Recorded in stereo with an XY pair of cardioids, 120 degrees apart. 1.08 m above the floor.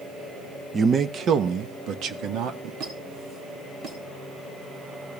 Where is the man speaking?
30° right, 0.7 m; by 2.7 s 70° right, 1.9 m.